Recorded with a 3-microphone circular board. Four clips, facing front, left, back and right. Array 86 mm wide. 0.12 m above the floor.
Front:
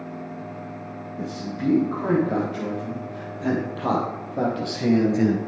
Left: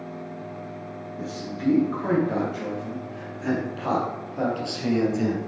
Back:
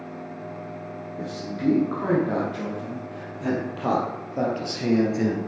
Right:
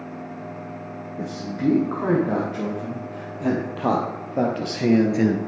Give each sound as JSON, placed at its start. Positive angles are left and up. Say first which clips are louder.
{"t": 1.2, "sound": "a man speaking", "louder": "right 5 dB, even", "azimuth_deg": -110, "distance_m": 5.5}